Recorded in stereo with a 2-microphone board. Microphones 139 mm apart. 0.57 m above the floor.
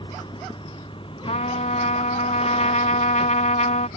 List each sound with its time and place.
0.0 s a vehicle: 35° left (ahead or behind); by 4.0 s 45° left (ahead or behind)
1.3 s a trumpet: 60° left (ahead or behind)